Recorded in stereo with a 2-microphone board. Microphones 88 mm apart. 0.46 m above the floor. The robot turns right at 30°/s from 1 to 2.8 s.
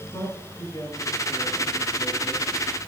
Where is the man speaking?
45° left, 6.5 m; by 2.5 s 85° left, 6.5 m.